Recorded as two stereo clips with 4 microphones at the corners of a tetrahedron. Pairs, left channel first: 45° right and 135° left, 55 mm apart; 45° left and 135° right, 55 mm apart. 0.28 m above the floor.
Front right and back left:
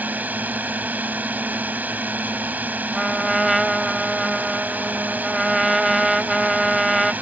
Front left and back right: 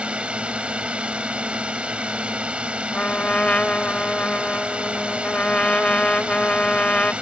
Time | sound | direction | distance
0.0 | a drone | 170° left | ?
2.9 | a trumpet | 55° left | ?